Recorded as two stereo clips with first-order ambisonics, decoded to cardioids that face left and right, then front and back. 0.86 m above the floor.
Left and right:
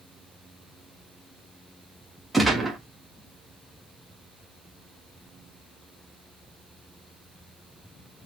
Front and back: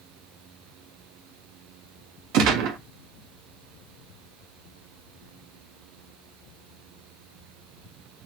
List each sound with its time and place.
2.3 s a gunshot: 175° right, 1.0 m